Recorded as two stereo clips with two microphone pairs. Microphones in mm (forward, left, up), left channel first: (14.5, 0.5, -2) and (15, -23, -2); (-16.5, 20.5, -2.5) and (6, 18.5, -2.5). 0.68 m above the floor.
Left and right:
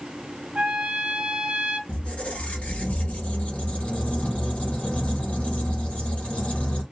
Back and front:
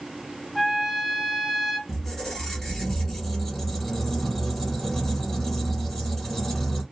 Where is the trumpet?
90° right, 0.7 m.